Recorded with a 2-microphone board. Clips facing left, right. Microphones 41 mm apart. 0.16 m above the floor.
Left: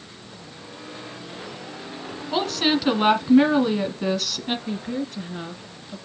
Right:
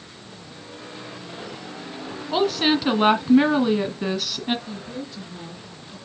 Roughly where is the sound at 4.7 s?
Left.